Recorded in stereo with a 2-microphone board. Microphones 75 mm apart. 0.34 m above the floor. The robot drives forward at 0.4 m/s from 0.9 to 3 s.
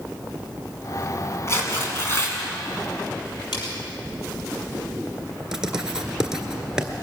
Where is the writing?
10° right (ahead or behind), 1.7 m.